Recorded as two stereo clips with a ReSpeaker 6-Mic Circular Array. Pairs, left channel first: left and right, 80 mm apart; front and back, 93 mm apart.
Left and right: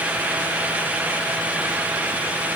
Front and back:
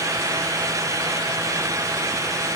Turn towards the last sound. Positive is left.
No sound to turn to.